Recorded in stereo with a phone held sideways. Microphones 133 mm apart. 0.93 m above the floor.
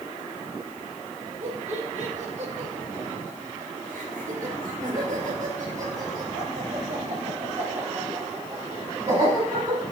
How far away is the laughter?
About 3.5 m.